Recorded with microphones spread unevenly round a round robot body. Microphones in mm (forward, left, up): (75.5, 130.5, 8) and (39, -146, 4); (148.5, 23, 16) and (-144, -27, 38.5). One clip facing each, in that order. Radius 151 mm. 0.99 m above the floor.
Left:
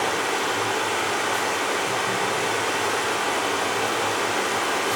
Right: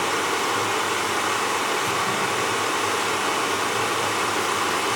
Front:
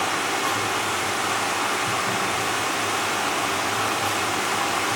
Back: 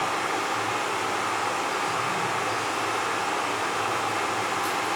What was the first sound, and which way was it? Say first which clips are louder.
Running water: even, front 2 dB; 25° right.